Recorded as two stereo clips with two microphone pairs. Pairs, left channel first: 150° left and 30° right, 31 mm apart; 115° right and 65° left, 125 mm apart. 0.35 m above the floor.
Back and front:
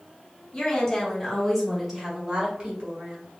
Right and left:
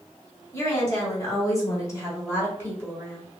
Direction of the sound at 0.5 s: 165° right.